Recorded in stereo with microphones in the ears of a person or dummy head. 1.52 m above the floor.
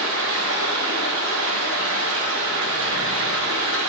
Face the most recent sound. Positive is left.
turn(degrees=-80)